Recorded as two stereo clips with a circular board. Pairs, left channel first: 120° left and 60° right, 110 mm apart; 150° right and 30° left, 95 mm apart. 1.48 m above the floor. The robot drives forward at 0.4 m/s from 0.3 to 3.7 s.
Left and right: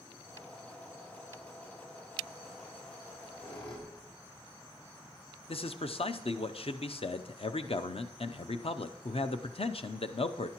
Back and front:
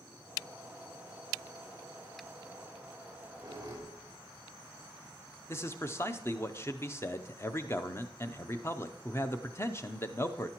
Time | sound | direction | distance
3.0 | a squeak | 80° left | 3 m
5.5 | a man speaking | 150° left | 0.5 m